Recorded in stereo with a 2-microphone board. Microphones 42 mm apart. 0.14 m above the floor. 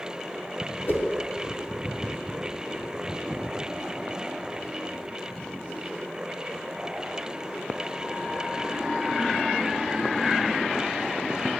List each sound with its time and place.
0.9 s a whoosh: 55° left (ahead or behind), 1.2 m